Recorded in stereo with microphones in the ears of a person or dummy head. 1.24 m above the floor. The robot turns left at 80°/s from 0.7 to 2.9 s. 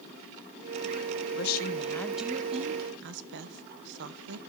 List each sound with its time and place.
1.3 s a woman speaking: 65° left, 0.9 m; by 4.4 s 60° right, 0.9 m